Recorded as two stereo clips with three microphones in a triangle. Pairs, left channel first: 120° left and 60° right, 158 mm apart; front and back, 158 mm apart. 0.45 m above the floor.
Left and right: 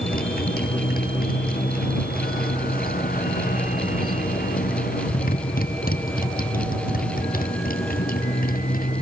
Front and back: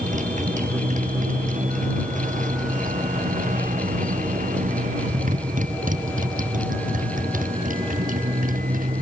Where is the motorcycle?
140° left; by 9.0 s 145° left.